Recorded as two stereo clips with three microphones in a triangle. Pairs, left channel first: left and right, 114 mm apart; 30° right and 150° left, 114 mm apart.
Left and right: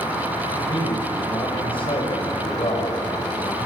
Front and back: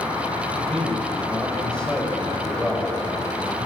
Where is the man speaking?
55° left, 5 m.